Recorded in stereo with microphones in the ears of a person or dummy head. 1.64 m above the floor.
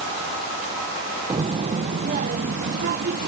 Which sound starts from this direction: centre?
A child speaking, at 1.3 s.